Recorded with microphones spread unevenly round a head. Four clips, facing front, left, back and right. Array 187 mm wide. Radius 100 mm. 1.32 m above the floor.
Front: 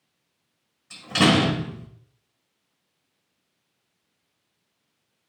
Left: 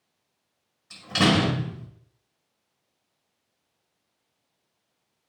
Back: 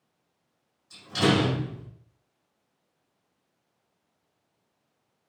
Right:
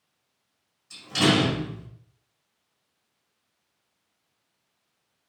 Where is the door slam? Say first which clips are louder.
Even, front 4 dB; 25° left, 5.5 m.